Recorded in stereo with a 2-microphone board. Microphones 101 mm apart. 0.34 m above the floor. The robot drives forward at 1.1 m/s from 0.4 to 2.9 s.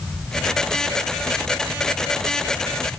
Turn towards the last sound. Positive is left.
No sound to turn to.